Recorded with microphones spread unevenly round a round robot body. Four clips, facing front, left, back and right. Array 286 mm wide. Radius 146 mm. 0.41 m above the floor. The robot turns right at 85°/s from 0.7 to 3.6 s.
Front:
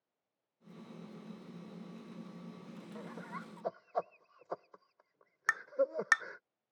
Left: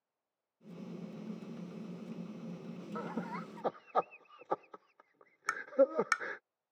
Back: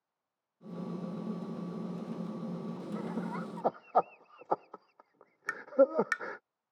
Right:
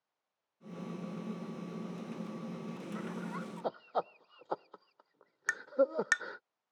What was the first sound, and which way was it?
Laughter, 110° left.